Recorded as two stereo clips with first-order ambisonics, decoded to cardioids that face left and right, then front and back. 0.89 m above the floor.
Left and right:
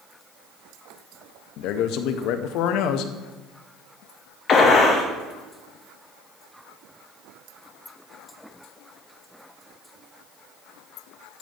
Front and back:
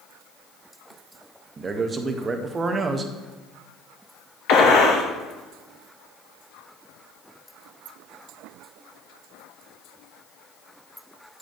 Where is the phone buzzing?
No phone buzzing in this recording.